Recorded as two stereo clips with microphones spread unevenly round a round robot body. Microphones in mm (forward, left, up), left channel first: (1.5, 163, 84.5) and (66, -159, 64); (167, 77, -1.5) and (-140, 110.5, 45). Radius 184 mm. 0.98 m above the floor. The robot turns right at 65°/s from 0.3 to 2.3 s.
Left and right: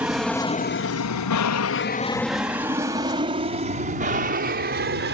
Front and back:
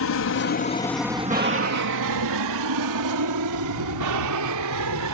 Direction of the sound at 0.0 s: 5° left.